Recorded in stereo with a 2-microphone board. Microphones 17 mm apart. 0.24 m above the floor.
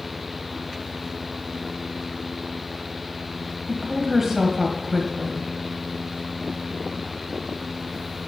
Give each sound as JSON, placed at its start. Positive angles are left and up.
{"t": 3.7, "sound": "a woman speaking", "side_deg": -20, "distance_m": 1.4}